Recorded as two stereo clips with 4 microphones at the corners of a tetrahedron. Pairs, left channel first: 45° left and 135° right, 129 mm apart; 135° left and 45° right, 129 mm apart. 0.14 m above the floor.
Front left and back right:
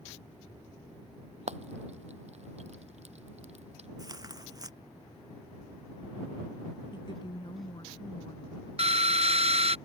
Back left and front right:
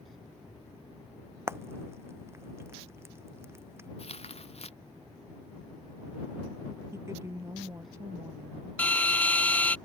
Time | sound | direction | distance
1.5 | frying | 115° right | ?
4.0 | tearing paper | 165° left | ?
6.9 | a woman speaking | 10° left | ?
8.8 | a drill | 150° right | ?